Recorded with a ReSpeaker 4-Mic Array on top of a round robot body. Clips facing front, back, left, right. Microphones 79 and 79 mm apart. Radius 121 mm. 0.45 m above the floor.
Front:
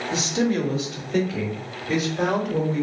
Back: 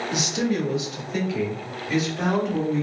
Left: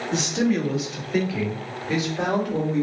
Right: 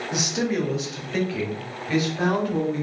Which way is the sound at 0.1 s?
25° right.